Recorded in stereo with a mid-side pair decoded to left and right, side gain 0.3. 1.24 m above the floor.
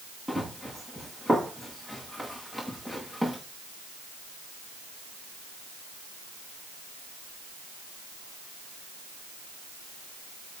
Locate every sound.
0.3 s running footsteps: 10° right, 8 m